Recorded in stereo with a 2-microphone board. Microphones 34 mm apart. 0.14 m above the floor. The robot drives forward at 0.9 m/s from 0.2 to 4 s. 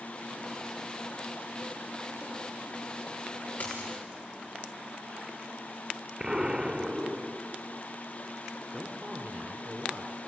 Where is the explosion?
20° right (ahead or behind), 1.2 m.